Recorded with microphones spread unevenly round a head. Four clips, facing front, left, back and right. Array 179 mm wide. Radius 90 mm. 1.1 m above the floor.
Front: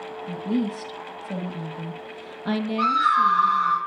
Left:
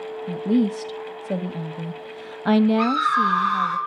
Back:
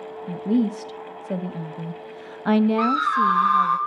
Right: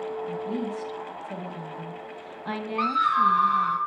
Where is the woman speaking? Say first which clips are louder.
Left 9 dB, back 4 dB; 120° left, 1.4 m.